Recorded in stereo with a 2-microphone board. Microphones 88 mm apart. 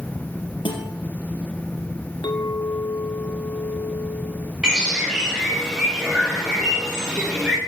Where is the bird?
10° right (ahead or behind), 8 m.